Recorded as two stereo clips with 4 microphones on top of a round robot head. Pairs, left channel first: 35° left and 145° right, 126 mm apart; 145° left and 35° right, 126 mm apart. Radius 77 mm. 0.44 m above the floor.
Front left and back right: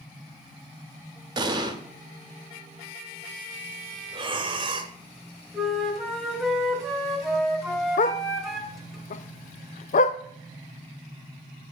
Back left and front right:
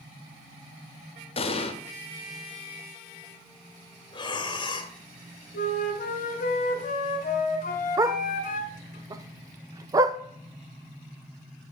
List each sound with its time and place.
1.4 s an explosion: 170° left, 1.0 m
4.1 s breathing: 175° right, 1.1 m
5.5 s a flute: 125° left, 1.3 m
8.0 s a dog barking: 25° left, 0.5 m